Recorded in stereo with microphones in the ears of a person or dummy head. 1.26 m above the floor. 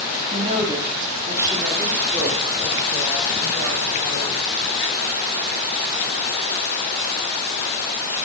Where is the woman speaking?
25° right (ahead or behind), 1.7 m; by 4.6 s centre (ahead or behind), 6 m.